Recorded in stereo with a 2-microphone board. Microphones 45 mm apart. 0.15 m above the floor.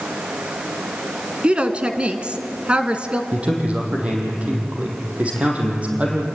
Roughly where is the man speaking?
Right.